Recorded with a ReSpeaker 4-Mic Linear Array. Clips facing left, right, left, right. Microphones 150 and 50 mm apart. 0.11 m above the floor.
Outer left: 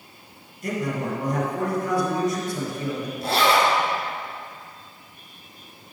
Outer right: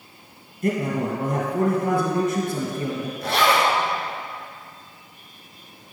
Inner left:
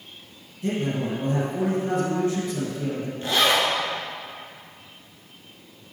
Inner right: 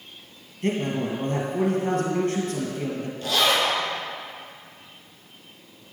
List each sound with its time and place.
0.6 s a man speaking: 45° right (ahead or behind), 1.8 m
3.2 s a zipper: 30° left (ahead or behind), 1.6 m